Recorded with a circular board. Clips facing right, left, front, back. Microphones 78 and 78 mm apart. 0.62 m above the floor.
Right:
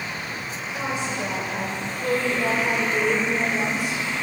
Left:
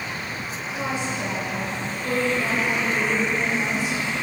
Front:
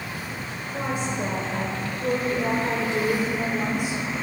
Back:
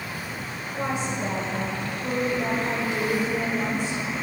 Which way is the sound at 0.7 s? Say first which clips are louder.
Even, even; 20° right.